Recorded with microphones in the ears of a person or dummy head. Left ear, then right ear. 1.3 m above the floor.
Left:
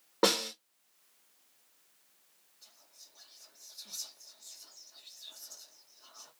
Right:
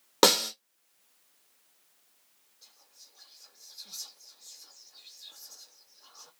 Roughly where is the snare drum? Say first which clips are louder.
Right 6 dB; right.